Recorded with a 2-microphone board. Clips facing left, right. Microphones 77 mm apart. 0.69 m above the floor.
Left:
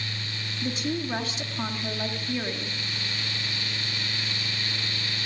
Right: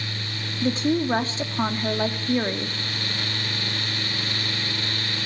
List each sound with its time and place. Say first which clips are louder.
0.6 s a woman speaking: right 8 dB; 35° right (ahead or behind), 1.5 m